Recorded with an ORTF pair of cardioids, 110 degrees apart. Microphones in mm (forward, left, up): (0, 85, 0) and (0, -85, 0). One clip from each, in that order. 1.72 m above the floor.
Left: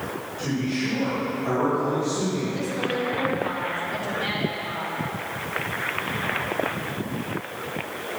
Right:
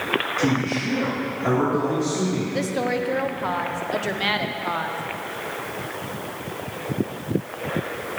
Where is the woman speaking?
45° right, 1.0 m.